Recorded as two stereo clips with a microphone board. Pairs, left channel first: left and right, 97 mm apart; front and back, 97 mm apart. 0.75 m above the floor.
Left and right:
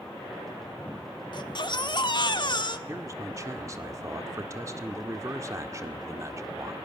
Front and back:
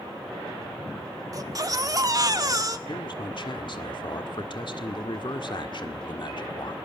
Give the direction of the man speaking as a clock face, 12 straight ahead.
1 o'clock.